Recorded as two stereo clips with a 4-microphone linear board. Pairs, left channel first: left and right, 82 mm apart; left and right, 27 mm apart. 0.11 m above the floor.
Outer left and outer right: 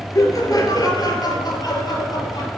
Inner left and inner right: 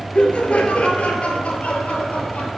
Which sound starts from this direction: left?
Laughter, at 0.1 s.